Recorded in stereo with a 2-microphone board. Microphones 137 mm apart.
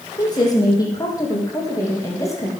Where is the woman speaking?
30° left (ahead or behind), 5.5 m; by 2.5 s 20° left (ahead or behind), 7.5 m.